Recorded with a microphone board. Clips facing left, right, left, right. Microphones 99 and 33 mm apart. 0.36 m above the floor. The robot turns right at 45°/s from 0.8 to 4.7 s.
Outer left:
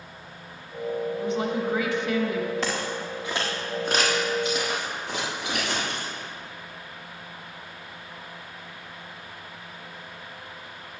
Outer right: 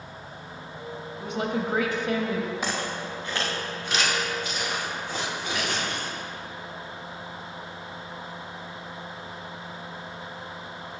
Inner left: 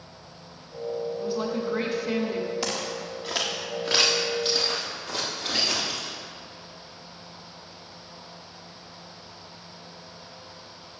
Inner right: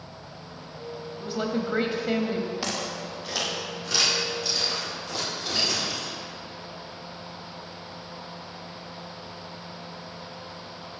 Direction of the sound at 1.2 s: 90° right.